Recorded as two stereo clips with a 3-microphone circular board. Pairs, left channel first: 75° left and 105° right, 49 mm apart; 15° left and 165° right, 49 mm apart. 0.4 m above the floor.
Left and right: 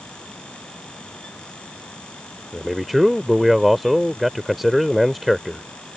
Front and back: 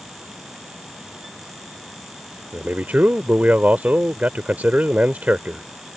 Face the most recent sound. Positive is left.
turn(degrees=170)